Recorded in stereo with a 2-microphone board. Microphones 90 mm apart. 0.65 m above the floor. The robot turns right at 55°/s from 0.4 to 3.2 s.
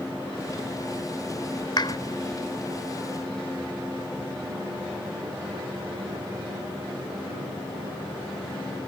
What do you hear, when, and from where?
1.8 s a clap: 50° left (ahead or behind); by 2.0 s 60° left (ahead or behind)